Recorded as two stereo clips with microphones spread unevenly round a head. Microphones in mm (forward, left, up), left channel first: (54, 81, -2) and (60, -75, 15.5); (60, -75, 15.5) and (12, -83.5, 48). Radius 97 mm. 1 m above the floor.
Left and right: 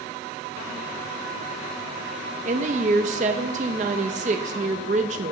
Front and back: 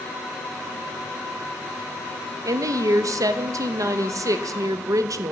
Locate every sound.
2.5 s a woman speaking: 145° right, 0.7 m